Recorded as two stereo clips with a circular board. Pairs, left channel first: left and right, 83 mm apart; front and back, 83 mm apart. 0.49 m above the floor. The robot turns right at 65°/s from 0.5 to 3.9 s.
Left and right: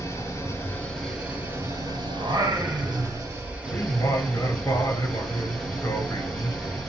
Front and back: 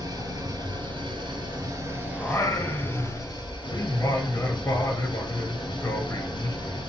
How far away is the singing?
About 0.7 m.